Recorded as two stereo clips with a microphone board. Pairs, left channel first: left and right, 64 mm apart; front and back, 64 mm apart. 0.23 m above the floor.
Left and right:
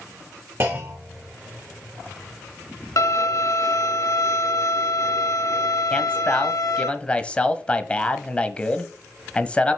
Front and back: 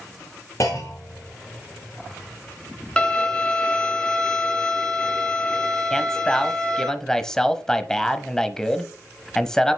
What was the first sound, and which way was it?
A clunk, 40° right.